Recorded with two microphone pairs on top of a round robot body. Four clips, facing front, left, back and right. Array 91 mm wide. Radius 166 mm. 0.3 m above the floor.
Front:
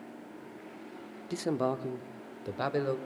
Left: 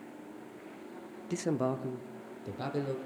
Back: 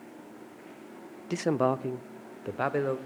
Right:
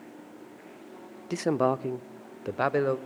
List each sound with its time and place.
1.3 s a man speaking: 120° right, 1.0 m; by 3.0 s 100° right, 1.9 m